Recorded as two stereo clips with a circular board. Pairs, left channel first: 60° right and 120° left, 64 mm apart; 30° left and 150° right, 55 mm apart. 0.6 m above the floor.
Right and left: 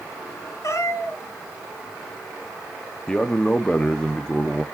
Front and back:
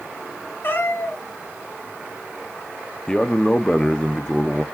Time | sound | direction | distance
0.6 | a cat meowing | 20° right | 1.9 m
3.1 | a man speaking | 20° right | 0.7 m